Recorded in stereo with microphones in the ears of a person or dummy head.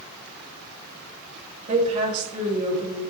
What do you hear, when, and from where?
1.7 s a woman speaking: 35° right (ahead or behind), 3 m